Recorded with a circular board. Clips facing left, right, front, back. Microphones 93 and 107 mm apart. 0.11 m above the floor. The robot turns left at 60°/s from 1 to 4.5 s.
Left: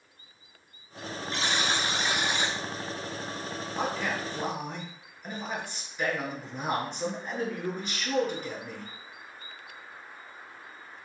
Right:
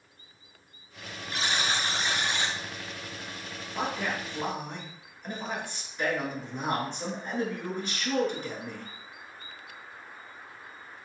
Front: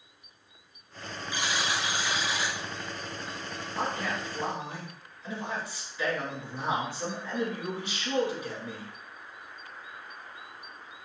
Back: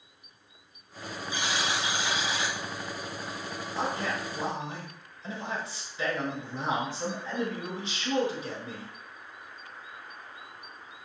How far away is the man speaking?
About 1.2 m.